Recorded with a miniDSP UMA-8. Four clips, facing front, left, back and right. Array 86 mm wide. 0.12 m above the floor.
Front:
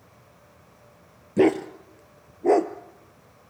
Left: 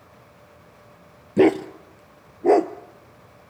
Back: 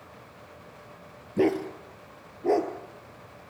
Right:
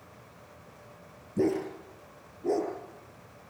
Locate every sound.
1.4 s a dog barking: 70° left, 1.2 m